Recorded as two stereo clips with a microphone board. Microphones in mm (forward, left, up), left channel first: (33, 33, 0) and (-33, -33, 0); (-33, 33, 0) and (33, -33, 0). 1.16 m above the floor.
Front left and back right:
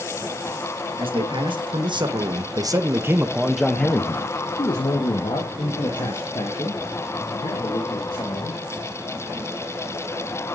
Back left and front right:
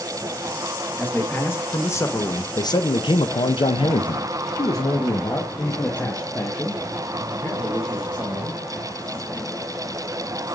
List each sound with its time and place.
1.0 s a man speaking: 155° right, 1.5 m; by 8.6 s 60° left, 3 m